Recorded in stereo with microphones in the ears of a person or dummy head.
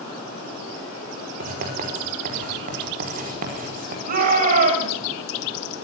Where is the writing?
45° right (ahead or behind), 4.5 m.